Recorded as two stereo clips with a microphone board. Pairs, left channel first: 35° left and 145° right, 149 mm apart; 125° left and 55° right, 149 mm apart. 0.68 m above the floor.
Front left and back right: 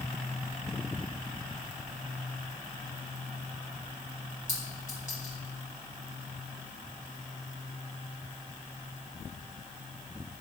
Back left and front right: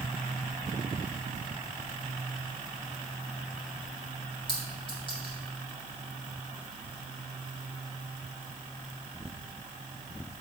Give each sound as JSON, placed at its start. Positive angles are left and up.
{"t": 4.5, "sound": "a clink", "azimuth_deg": 70, "distance_m": 3.0}